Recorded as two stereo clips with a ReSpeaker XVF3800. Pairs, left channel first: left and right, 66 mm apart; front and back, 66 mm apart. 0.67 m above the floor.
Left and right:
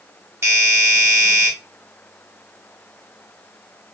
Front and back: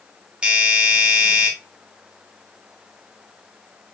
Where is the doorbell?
115° right, 1.6 m.